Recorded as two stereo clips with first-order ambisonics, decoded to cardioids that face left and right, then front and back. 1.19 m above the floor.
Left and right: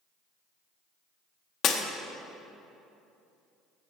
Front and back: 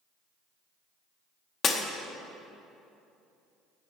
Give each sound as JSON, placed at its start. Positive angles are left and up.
{"t": 1.6, "sound": "breaking glass", "azimuth_deg": 55, "distance_m": 0.7}